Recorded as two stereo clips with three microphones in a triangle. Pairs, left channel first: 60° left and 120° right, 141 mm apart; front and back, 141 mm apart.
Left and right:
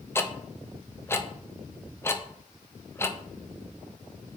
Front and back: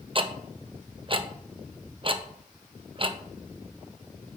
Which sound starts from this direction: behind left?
Ticking, at 0.1 s.